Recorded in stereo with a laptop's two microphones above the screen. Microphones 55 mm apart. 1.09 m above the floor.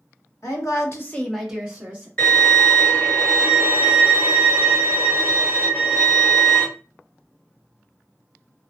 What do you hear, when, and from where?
0.4 s a woman speaking: 80° left, 0.9 m; by 2.1 s 30° right (ahead or behind), 1.2 m
2.2 s a violin: 25° left (ahead or behind), 1.5 m